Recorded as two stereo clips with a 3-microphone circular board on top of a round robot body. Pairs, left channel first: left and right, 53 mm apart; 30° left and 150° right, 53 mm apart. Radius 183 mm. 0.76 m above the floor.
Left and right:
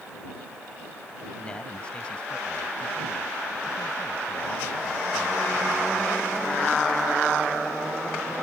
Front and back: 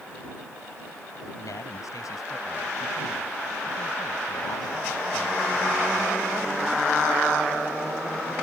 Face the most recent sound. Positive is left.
turn(degrees=30)